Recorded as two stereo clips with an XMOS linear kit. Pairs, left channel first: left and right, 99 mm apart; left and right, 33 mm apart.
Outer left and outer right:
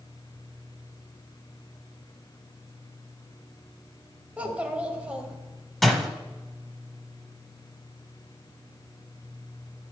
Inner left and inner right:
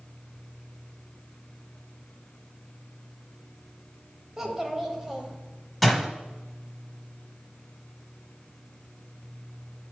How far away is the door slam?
About 1.2 m.